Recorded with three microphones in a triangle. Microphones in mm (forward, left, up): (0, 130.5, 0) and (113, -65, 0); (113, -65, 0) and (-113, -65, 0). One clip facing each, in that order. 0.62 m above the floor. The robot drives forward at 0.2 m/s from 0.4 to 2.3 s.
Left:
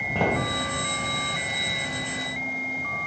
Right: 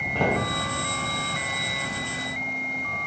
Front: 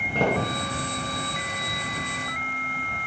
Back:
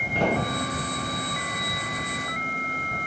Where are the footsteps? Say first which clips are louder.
Even, front 1 dB; 35° left, 1.3 m.